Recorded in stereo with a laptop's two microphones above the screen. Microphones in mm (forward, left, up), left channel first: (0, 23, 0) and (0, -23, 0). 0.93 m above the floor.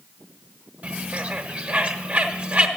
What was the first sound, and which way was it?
A bird, 30° right (ahead or behind).